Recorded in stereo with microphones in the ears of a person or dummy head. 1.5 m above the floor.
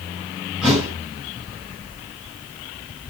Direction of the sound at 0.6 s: 5° left (ahead or behind).